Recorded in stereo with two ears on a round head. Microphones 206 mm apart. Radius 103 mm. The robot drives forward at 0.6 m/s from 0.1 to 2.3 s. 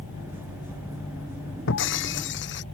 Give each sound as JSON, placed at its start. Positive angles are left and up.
{"t": 1.7, "sound": "breaking glass", "side_deg": 60}